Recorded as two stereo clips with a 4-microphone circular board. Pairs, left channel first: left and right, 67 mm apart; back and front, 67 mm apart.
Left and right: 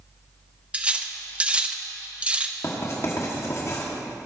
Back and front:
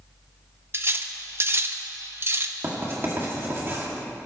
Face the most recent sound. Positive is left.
turn(degrees=50)